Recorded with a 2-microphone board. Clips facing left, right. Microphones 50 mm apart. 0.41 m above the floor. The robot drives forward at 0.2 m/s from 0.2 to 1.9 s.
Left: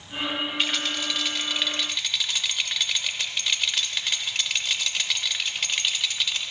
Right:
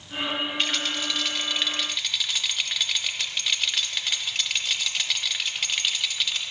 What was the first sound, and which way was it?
A rattle, centre (ahead or behind).